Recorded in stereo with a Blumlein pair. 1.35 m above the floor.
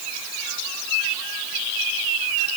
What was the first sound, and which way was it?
Only background noise.